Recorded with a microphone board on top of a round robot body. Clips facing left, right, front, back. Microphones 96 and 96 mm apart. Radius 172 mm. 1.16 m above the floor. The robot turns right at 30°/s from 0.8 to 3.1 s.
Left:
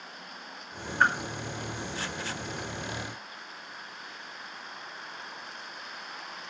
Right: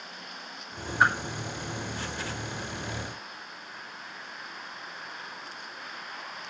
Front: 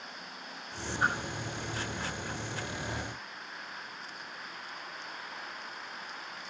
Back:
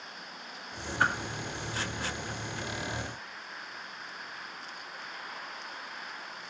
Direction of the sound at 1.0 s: 170° right.